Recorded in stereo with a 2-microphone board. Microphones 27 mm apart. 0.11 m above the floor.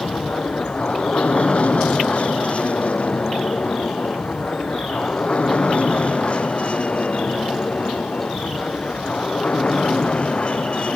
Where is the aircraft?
45° left (ahead or behind); by 11.0 s 40° left (ahead or behind).